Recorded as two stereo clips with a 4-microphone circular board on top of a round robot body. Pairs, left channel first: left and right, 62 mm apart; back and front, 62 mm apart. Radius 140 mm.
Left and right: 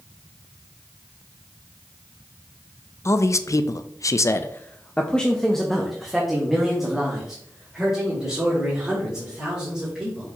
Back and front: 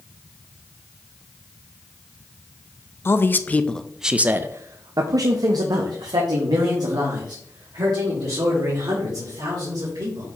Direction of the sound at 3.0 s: 130° left.